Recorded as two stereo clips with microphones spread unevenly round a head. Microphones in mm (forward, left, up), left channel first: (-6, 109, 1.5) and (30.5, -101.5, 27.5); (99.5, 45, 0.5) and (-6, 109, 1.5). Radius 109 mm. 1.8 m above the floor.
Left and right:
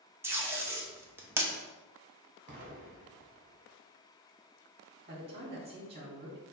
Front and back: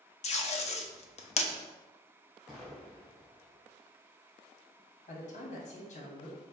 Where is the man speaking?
25° right, 1.1 m.